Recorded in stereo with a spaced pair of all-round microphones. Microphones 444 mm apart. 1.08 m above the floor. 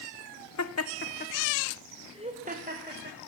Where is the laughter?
40° left (ahead or behind), 0.6 m; by 3.2 s 25° right (ahead or behind), 1.3 m.